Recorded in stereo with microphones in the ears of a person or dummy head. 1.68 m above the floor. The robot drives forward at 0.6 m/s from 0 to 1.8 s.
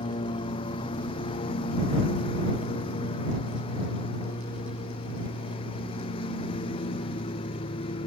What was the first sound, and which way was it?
A lawn mower, 30° left (ahead or behind).